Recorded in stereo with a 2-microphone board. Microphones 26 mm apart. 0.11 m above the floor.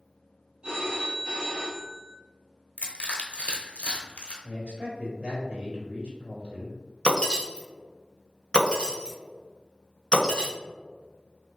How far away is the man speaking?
About 1.4 m.